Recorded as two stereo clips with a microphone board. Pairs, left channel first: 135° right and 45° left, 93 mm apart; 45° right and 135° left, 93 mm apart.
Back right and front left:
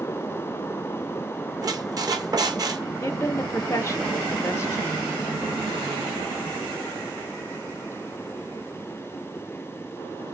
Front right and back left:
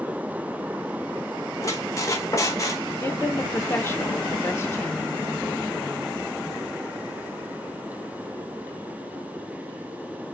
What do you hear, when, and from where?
1.6 s a squeak: 5° left, 0.6 m
3.0 s a woman speaking: 95° right, 0.5 m